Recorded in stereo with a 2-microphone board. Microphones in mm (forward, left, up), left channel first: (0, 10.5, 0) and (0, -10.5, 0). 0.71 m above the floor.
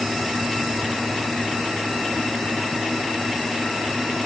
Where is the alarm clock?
No alarm clock in this recording.